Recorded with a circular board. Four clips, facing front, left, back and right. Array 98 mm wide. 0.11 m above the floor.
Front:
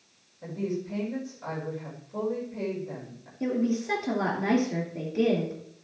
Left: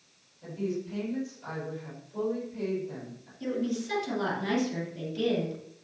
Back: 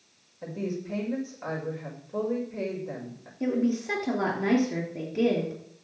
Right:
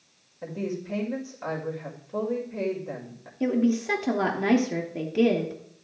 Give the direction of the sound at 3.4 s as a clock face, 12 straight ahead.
3 o'clock.